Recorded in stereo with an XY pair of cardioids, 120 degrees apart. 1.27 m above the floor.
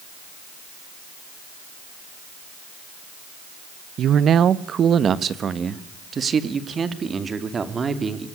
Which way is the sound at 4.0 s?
55° right.